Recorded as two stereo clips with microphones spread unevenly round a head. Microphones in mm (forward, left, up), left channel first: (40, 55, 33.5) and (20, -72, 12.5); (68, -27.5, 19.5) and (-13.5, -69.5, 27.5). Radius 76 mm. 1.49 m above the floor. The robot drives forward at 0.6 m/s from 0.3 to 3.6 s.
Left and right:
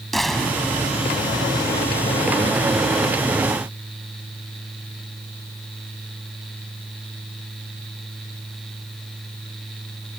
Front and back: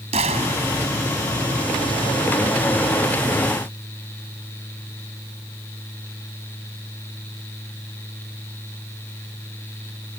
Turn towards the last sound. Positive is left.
turn(degrees=170)